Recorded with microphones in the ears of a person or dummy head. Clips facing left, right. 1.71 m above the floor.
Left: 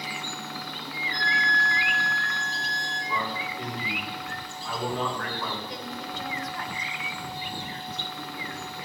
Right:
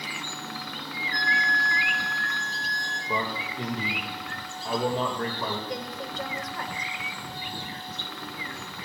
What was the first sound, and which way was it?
A flute, 20° right (ahead or behind).